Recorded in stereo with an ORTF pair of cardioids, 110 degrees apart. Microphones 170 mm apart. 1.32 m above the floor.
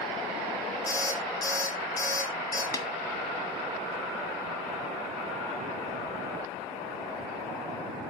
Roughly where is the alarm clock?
Ahead left.